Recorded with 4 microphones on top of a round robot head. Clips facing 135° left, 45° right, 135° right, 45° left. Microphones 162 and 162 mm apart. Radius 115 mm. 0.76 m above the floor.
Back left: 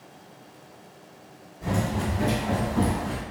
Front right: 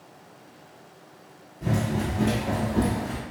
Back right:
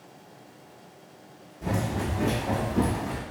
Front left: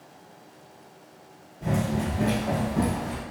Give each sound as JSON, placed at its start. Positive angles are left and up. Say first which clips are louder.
{"t": 1.6, "sound": "running footsteps", "louder": "front right 1 dB, front left 2 dB", "azimuth_deg": -45, "distance_m": 0.8}